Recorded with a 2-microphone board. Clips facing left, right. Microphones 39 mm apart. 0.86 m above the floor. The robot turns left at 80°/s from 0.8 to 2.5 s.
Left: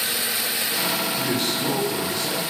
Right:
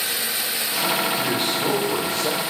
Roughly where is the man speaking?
Ahead.